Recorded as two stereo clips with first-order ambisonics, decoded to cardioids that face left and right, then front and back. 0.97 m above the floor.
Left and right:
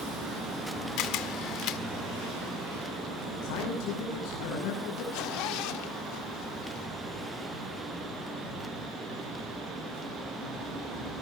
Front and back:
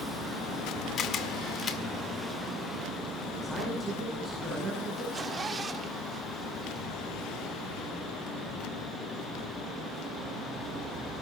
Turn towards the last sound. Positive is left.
turn(degrees=105)